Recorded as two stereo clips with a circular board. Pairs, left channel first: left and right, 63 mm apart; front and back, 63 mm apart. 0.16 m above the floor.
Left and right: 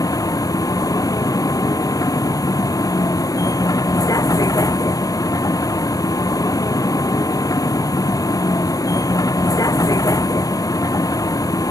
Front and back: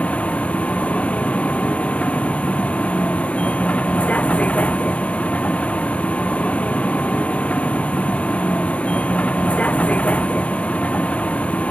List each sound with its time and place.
0.0 s a vehicle: 70° left